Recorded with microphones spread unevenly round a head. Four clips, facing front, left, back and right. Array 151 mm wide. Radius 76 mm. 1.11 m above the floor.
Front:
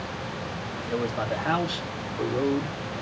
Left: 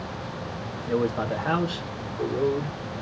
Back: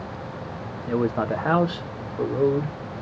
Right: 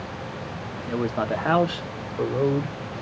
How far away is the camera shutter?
No camera shutter in this recording.